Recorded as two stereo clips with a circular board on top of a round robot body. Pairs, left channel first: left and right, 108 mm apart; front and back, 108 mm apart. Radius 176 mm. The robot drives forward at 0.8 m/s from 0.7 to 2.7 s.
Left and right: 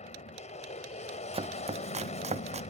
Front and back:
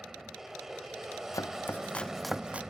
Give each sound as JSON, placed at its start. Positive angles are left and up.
{"t": 0.0, "sound": "an aircraft", "azimuth_deg": 95}
{"t": 1.3, "sound": "chopping", "azimuth_deg": -60}